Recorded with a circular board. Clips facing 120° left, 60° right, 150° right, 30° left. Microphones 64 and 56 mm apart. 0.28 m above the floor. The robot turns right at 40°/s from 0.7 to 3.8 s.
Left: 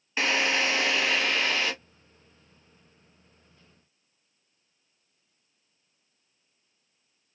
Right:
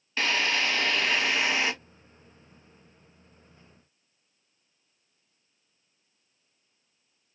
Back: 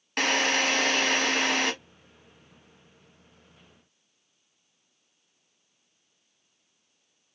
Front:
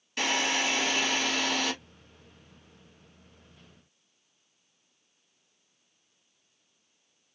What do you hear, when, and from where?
0.2 s a drill: 170° right, 0.9 m; by 1.7 s 125° right, 0.9 m